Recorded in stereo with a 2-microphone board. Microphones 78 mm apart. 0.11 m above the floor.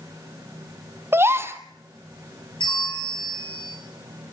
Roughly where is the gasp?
Right.